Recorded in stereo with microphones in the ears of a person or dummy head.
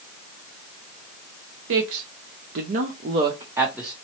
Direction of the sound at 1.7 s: 75° right (ahead or behind).